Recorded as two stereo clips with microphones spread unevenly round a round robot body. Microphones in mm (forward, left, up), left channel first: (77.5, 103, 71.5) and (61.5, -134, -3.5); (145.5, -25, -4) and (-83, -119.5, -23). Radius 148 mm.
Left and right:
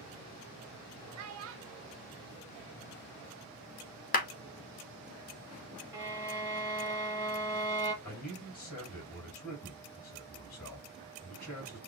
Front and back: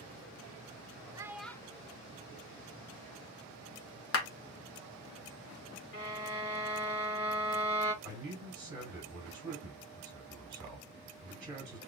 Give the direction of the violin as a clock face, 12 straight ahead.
12 o'clock.